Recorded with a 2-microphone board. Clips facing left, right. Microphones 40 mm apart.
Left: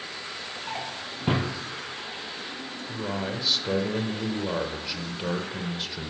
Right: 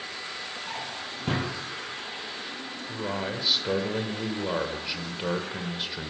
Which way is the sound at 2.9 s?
10° right (ahead or behind).